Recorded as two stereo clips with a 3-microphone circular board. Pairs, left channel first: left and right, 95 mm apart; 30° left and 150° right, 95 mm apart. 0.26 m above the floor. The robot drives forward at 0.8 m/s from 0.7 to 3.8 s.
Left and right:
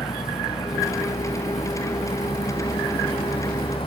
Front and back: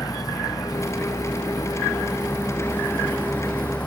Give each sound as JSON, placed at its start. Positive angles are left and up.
{"t": 0.0, "sound": "a vehicle", "azimuth_deg": 85}